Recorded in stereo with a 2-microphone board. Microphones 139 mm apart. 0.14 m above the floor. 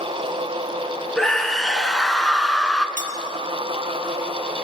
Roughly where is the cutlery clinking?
Left.